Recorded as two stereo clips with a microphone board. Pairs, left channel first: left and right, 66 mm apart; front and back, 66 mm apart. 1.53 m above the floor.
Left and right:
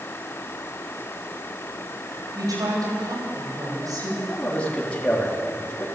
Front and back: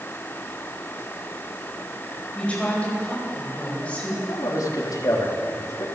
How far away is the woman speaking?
About 9.5 m.